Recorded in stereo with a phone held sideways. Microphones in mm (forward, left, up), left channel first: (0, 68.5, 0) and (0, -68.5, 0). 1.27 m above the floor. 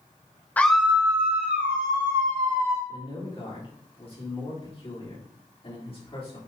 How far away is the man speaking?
About 4 m.